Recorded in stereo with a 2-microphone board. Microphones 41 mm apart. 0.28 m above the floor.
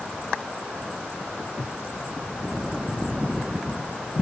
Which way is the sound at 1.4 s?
60° left (ahead or behind).